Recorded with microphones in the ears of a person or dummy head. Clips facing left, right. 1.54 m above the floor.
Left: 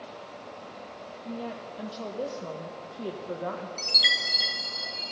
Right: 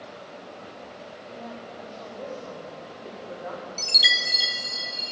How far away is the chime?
About 0.6 m.